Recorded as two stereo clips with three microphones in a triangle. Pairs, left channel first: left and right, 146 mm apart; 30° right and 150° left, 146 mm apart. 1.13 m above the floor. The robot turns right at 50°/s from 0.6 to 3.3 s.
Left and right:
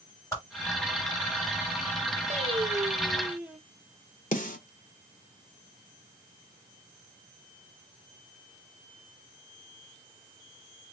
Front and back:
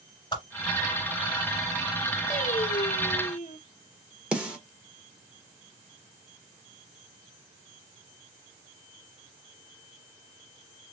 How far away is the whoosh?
About 2 m.